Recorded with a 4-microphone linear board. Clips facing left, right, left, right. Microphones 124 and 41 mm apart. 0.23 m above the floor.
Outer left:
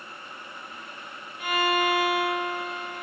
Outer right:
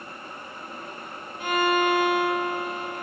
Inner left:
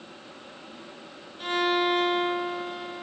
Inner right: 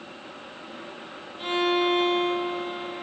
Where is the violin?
30° right (ahead or behind), 1.7 m.